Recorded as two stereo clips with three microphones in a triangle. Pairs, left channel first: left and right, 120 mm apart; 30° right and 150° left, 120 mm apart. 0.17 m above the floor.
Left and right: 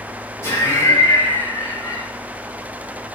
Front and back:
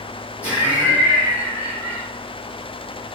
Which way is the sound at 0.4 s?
90° left.